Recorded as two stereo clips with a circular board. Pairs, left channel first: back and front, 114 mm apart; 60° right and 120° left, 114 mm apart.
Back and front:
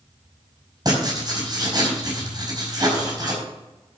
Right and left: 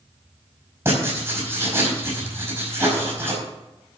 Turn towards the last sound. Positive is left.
turn(degrees=55)